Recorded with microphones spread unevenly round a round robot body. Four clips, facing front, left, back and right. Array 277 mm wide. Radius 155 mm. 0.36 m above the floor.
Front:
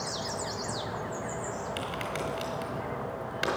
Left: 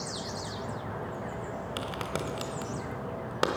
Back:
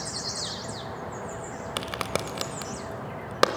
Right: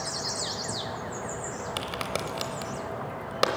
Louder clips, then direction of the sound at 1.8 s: Right 2 dB, back 2 dB; 165° left.